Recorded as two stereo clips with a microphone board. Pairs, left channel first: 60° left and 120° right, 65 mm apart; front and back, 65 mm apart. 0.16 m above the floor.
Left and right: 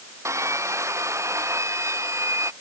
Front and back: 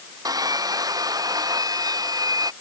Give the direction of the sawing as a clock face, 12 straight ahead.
5 o'clock.